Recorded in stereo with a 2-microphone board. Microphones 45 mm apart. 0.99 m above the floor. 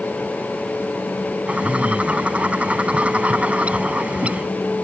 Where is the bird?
30° right (ahead or behind).